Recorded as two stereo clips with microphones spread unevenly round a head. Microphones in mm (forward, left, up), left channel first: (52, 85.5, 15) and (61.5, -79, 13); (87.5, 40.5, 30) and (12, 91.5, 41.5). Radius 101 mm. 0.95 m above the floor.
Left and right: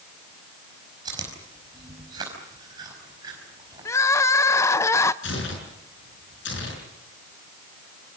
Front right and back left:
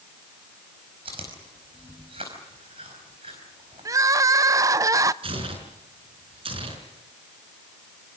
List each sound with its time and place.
1.1 s chewing: 160° right, 4.5 m
3.9 s crying: 150° left, 0.7 m
5.2 s tearing paper: 130° left, 6 m